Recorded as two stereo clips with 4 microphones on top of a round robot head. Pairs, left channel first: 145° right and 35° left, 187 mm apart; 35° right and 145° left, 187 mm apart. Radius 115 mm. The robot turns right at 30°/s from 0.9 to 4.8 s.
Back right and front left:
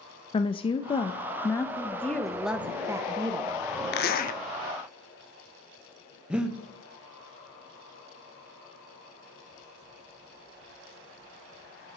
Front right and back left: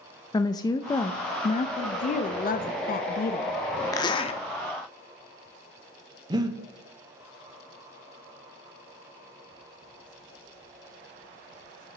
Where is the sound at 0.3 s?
95° right, 0.5 m; by 1.7 s 70° right, 0.5 m.